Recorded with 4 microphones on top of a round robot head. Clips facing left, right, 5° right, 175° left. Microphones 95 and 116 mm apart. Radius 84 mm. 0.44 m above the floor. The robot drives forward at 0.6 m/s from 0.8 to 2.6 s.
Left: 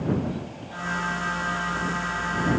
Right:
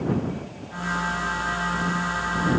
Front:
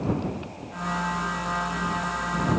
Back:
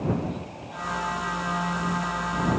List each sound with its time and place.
Only background noise.